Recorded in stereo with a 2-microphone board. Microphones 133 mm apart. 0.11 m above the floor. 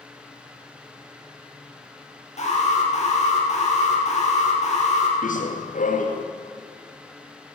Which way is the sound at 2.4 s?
55° left (ahead or behind).